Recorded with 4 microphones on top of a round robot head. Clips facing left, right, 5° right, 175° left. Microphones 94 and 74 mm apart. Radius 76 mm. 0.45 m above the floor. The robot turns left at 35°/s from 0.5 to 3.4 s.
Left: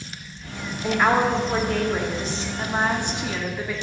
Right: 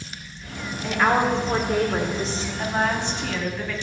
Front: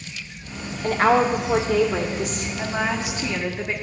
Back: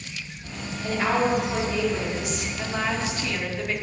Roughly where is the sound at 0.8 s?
Ahead.